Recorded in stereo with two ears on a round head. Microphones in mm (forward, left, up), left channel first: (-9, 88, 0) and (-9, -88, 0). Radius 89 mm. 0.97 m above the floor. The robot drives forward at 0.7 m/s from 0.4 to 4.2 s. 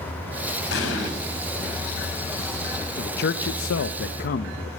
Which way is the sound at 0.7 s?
70° left (ahead or behind).